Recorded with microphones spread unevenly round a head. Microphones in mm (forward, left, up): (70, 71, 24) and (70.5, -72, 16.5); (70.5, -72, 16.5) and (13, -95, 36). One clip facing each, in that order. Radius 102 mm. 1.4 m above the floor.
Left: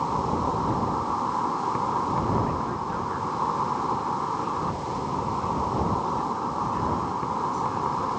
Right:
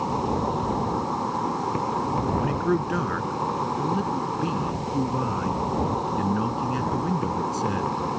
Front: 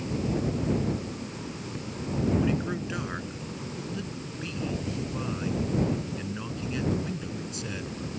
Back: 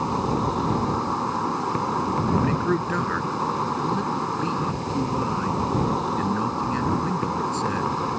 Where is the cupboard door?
No cupboard door in this recording.